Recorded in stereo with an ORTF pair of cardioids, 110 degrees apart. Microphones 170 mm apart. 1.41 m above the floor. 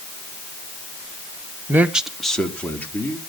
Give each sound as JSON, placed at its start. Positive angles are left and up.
{"t": 1.7, "sound": "a man speaking", "azimuth_deg": -15, "distance_m": 1.1}